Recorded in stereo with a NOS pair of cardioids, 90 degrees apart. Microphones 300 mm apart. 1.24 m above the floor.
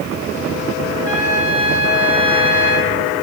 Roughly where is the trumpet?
Right.